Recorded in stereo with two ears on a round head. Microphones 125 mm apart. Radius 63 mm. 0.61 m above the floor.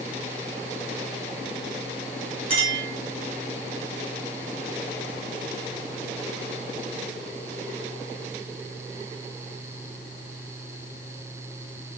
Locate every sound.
2.5 s a clink: 40° right (ahead or behind), 1.8 m